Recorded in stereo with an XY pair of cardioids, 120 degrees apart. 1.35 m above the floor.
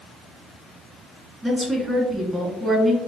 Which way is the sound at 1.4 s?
15° right.